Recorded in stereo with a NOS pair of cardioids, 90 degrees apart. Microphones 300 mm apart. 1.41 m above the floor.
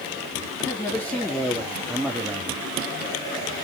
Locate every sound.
0.6 s a man speaking: 10° left, 3.5 m; by 2.6 s 10° right, 2 m